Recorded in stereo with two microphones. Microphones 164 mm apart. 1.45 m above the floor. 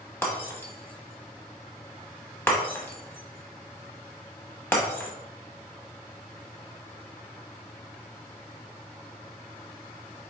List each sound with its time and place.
0.2 s breaking glass: 15° left (ahead or behind), 1.0 m